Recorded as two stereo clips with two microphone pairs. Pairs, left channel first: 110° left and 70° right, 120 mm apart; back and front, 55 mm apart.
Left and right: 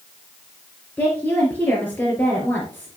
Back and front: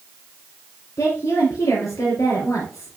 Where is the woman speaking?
175° right, 3.5 m.